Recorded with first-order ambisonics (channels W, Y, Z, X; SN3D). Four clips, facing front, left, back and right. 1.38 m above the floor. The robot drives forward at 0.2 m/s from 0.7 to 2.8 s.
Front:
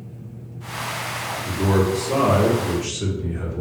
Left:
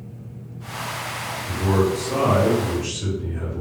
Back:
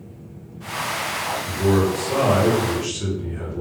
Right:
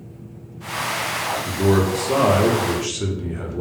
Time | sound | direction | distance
1.4 | a man speaking | 70° right | 0.9 m